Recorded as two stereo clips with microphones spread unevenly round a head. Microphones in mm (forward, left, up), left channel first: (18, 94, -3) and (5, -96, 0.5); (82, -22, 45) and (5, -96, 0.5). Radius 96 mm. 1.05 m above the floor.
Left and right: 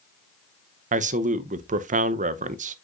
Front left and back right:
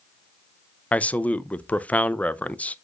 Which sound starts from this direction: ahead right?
A man speaking, at 0.9 s.